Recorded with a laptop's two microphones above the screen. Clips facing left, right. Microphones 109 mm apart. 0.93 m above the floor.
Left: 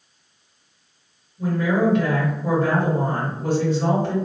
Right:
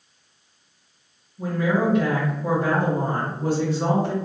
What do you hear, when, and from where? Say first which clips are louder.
1.4 s a woman speaking: left 2 dB; 20° right (ahead or behind), 1.5 m